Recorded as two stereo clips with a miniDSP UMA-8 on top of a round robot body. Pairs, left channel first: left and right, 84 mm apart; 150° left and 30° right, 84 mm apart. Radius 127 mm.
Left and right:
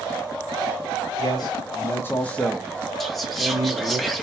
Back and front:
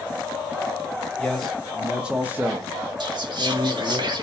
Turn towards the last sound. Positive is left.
turn(degrees=5)